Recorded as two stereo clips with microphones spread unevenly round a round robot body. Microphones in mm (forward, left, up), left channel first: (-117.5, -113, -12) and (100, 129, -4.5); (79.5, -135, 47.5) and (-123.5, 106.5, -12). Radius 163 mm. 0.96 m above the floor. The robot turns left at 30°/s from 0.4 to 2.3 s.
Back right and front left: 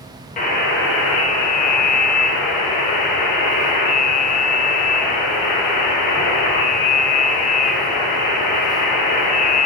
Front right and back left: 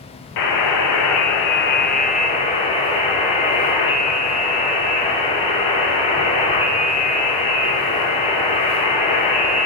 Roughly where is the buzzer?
Right.